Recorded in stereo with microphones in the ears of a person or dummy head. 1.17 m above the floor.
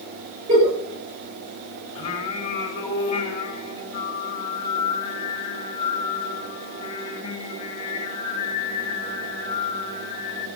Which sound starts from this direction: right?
A giggle, at 0.5 s.